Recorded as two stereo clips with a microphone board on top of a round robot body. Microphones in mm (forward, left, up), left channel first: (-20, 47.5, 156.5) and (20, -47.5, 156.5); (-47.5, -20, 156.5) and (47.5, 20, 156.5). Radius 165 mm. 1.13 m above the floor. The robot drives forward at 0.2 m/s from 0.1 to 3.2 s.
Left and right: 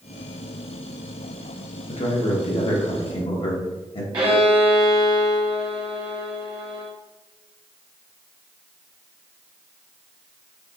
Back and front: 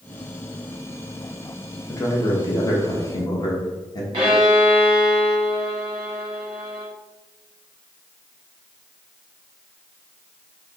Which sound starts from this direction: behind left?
A man speaking, at 1.9 s.